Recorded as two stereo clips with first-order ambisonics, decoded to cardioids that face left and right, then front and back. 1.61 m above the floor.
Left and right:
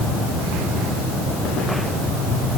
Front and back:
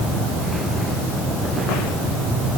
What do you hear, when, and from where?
Only background noise.